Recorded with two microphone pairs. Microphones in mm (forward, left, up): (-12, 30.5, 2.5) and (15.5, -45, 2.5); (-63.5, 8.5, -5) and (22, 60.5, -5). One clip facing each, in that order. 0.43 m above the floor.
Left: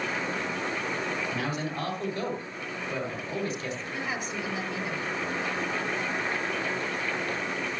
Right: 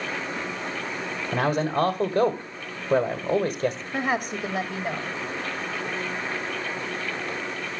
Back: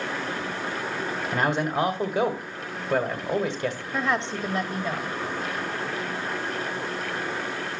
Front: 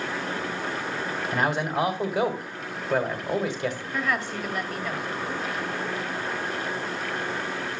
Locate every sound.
1.3 s a man speaking: 65° right, 1.6 m
3.9 s a woman speaking: 90° right, 1.7 m